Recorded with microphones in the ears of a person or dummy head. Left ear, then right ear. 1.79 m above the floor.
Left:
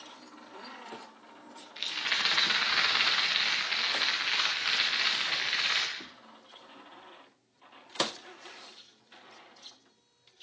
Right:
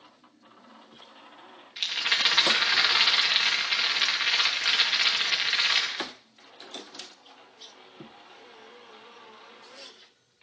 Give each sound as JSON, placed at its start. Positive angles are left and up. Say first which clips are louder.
{"t": 1.8, "sound": "a rattle", "louder": "right 5 dB", "side_deg": -10, "distance_m": 1.6}